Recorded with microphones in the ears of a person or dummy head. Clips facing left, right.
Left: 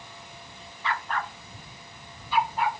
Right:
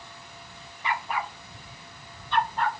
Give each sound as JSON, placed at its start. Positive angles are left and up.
{"t": 0.8, "sound": "a dog barking", "side_deg": -15}